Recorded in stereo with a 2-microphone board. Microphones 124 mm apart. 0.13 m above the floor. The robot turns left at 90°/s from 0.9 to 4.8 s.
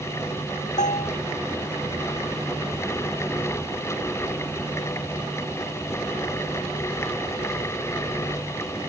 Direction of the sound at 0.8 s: 75° left (ahead or behind).